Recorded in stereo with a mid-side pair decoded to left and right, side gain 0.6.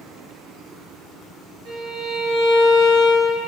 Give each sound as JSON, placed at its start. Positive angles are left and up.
{"t": 1.6, "sound": "a violin", "azimuth_deg": -70, "distance_m": 1.2}